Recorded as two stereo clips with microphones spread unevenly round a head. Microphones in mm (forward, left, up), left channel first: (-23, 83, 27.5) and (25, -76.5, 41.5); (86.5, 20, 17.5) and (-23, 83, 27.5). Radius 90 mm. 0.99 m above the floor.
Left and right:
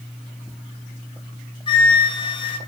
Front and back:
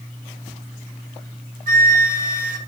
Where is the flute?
165° left, 1.9 m.